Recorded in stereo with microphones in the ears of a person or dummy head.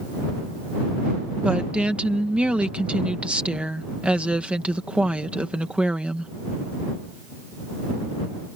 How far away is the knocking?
I don't hear knocking.